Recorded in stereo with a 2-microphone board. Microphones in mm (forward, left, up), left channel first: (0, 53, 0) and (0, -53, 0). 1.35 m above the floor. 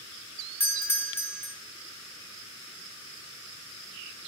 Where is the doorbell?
20° left (ahead or behind), 1.2 m.